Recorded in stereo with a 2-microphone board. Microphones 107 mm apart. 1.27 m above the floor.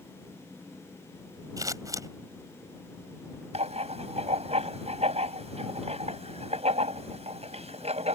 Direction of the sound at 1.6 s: 35° right (ahead or behind).